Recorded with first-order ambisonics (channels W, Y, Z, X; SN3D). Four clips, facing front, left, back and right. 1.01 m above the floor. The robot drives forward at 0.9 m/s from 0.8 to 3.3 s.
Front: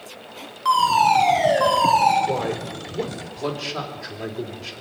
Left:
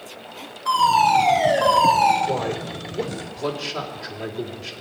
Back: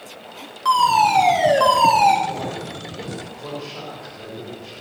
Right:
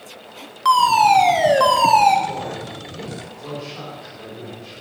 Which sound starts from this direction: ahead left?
A man speaking, at 2.3 s.